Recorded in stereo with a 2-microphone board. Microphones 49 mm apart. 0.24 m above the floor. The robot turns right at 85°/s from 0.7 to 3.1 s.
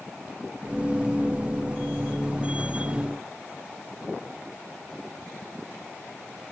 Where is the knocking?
No knocking in this recording.